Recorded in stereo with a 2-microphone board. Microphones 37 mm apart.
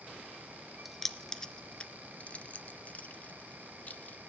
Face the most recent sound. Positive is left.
turn(degrees=45)  # may be behind; listen again after turning